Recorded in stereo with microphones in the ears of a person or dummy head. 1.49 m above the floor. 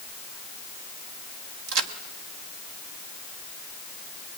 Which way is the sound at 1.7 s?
55° right (ahead or behind).